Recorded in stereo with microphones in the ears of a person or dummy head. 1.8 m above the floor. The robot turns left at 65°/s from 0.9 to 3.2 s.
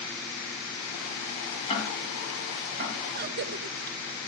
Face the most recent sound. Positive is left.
turn(degrees=-50)  # may be behind; listen again after turning